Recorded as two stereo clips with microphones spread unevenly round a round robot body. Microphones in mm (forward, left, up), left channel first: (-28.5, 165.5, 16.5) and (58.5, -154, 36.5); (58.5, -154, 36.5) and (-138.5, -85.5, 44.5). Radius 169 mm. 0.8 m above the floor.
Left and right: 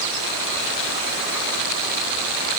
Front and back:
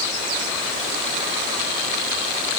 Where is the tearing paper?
No tearing paper in this recording.